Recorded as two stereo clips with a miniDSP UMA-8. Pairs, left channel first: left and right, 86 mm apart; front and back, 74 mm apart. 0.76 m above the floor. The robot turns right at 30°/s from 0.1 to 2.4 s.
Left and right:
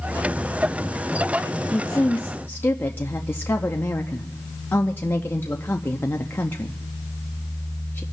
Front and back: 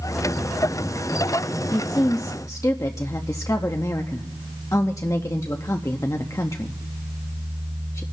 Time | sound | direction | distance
1.7 | a woman speaking | 10° left | 0.6 m